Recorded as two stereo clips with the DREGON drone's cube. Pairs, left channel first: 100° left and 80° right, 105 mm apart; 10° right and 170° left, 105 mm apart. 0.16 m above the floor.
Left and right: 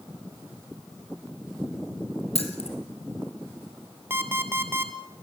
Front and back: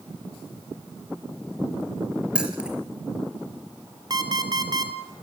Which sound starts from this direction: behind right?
An alarm clock, at 4.1 s.